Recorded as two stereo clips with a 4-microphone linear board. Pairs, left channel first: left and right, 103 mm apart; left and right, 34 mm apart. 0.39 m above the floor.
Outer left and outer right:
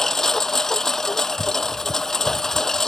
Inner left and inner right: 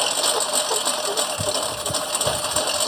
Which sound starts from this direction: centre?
A lawn mower, at 0.0 s.